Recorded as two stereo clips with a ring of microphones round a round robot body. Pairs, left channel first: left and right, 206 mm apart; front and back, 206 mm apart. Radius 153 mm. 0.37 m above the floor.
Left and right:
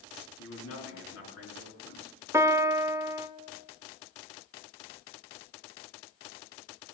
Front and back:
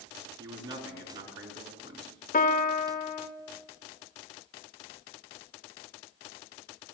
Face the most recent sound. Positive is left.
turn(degrees=-20)